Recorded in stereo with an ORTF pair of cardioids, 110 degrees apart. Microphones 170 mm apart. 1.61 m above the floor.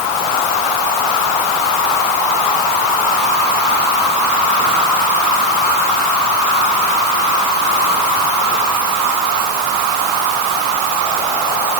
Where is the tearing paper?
I don't hear tearing paper.